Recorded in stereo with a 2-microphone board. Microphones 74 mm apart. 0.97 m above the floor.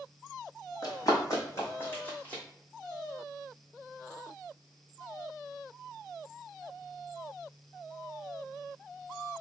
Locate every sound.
0.8 s running footsteps: 50° left (ahead or behind), 2.0 m; by 2.4 s 15° left (ahead or behind), 1.7 m